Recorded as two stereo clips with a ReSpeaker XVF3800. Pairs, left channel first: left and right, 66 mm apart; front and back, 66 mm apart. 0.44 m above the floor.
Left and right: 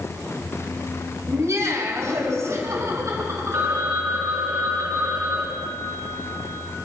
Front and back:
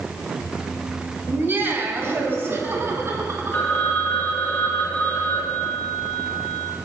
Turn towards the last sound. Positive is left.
turn(degrees=-60)